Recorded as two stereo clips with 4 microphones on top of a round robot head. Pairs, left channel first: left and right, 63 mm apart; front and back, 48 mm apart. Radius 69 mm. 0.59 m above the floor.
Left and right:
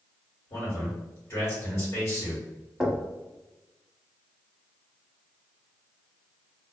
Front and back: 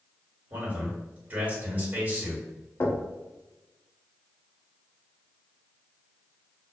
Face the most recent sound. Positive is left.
turn(degrees=-5)